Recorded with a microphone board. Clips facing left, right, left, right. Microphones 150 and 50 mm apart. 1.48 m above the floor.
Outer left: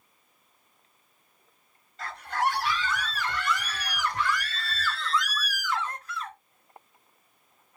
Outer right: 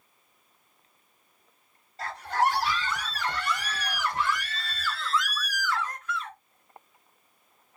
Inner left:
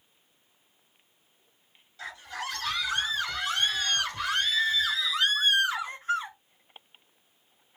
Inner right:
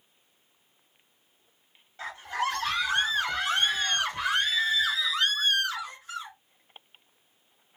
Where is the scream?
40° right (ahead or behind), 3.5 m; by 6.4 s 50° left (ahead or behind), 0.9 m.